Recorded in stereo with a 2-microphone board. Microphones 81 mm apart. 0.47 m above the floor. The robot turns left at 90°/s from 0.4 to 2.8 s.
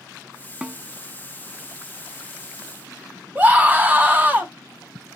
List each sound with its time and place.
0.6 s a snare drum: 15° right (ahead or behind), 0.5 m; by 0.8 s 5° left (ahead or behind), 0.5 m
3.4 s a scream: 20° right (ahead or behind), 1.0 m